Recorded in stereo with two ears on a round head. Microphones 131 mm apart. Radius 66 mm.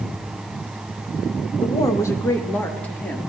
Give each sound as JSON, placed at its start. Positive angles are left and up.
{"t": 1.6, "sound": "a woman speaking", "side_deg": 30, "distance_m": 1.1}